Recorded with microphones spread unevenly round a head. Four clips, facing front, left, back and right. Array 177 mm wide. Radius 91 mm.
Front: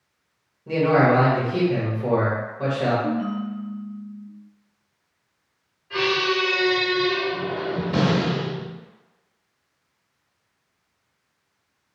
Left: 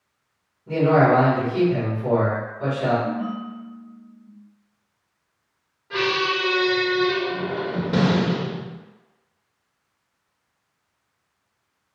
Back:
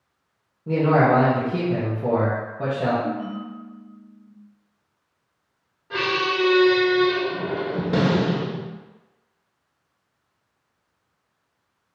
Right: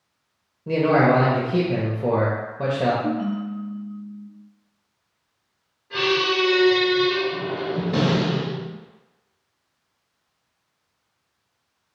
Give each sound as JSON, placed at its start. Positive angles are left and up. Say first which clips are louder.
{"t": 0.7, "sound": "a man speaking", "louder": "left 1 dB, even", "azimuth_deg": -105, "distance_m": 1.3}
{"t": 3.0, "sound": "a ringtone", "louder": "right 2 dB, front 3 dB", "azimuth_deg": -95, "distance_m": 1.6}
{"t": 5.9, "sound": "a squeak", "louder": "right 1 dB, front 1 dB", "azimuth_deg": 165, "distance_m": 1.1}